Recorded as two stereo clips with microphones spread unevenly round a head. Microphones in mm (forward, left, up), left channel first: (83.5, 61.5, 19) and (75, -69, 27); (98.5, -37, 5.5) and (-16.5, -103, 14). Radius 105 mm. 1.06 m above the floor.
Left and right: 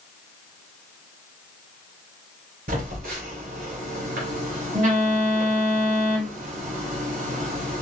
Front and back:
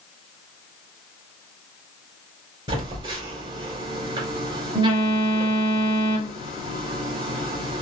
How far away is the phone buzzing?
About 2.5 m.